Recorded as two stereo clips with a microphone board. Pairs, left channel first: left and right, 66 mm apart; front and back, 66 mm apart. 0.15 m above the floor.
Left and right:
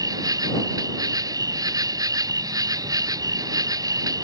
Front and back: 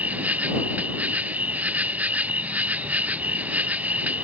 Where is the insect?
110° right.